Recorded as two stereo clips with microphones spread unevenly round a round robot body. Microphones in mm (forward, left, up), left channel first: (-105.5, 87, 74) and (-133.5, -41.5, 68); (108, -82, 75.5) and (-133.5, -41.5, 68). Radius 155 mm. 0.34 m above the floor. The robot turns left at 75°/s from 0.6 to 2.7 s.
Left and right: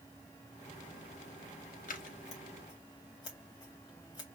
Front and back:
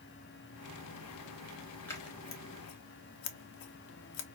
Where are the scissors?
75° left, 0.8 m; by 4.2 s 10° left, 0.8 m.